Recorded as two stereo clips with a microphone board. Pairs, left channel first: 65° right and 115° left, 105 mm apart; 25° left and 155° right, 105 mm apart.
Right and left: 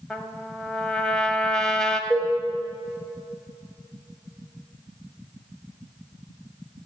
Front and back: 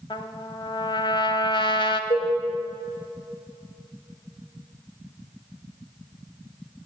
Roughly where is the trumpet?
Ahead.